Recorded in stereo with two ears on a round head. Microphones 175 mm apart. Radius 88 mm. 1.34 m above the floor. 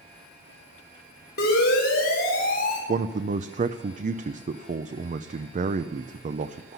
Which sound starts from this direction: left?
A siren, at 1.4 s.